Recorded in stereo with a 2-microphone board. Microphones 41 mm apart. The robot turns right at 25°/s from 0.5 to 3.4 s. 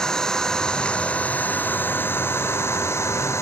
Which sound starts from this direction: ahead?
An engine running, at 0.0 s.